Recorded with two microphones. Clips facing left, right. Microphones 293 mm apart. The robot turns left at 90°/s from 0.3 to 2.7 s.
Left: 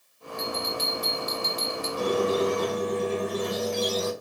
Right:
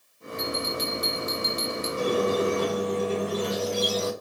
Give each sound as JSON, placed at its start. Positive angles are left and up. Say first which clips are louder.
{"t": 0.4, "sound": "a bell", "louder": "right 2 dB", "azimuth_deg": -30, "distance_m": 1.6}
{"t": 2.0, "sound": "a squeak", "louder": "even", "azimuth_deg": -25, "distance_m": 1.1}